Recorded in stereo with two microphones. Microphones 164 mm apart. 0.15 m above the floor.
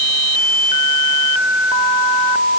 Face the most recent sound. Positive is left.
No sound to turn to.